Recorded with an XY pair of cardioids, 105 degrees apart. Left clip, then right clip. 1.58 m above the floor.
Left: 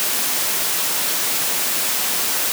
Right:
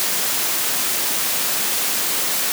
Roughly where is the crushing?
No crushing in this recording.